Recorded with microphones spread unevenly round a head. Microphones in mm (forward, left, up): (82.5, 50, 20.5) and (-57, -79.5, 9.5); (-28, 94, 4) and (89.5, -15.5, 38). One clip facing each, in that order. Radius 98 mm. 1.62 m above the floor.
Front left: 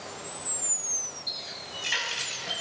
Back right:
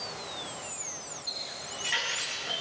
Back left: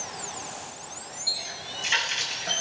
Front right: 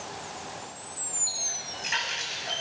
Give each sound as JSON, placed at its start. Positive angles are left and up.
{"t": 1.3, "sound": "a running tap", "azimuth_deg": 80, "distance_m": 6.5}